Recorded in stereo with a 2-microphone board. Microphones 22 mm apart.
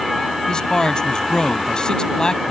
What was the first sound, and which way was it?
A man speaking, 40° left (ahead or behind).